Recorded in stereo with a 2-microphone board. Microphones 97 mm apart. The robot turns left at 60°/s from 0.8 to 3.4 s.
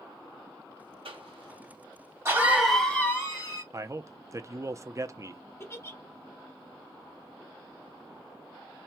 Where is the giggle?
25° left (ahead or behind), 0.6 m.